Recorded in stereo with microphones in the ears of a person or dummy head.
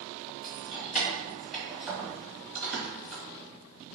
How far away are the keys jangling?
About 1.4 m.